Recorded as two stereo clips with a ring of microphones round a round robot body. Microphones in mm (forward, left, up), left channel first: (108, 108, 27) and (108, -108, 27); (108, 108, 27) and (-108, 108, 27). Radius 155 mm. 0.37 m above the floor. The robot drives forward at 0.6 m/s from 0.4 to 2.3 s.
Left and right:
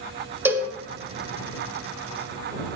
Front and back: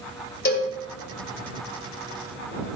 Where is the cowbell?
15° right, 1.8 m; by 0.7 s 20° right, 1.7 m.